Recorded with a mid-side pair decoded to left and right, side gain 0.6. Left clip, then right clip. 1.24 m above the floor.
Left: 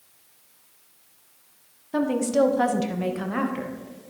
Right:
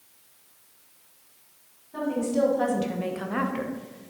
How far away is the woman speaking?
About 1.5 m.